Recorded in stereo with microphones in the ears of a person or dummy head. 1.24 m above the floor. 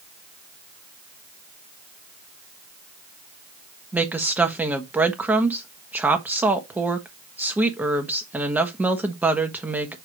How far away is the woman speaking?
About 1.3 m.